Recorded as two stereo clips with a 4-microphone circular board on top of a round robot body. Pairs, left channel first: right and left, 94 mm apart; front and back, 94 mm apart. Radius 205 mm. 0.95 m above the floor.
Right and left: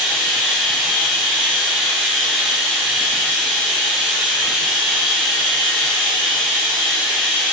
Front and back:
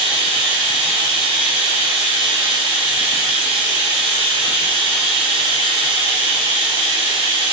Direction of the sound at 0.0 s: 165° left.